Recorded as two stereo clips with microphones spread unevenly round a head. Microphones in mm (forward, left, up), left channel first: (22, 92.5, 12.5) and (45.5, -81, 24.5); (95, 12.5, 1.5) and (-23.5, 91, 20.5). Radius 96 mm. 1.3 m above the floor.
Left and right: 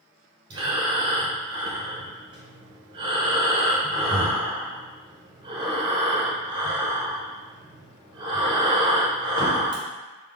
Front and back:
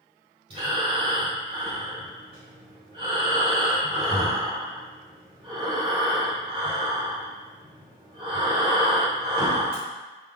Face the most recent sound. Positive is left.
turn(degrees=-150)